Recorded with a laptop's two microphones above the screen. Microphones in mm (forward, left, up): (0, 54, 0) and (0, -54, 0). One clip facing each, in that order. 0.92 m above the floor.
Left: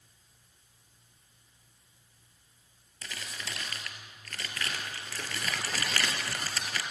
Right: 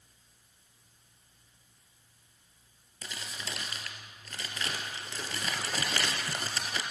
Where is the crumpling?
20° right (ahead or behind), 3 m.